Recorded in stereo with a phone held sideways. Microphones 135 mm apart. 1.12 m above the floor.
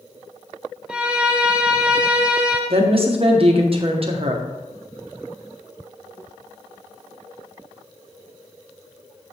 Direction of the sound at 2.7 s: 45° right (ahead or behind).